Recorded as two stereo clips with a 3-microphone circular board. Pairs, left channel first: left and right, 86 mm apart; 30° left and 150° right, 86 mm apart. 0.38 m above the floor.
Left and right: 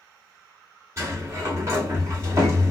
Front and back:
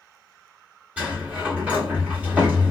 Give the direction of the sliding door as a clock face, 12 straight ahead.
3 o'clock.